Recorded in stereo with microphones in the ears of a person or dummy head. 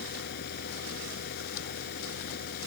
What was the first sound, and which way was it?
A fan, 65° left (ahead or behind).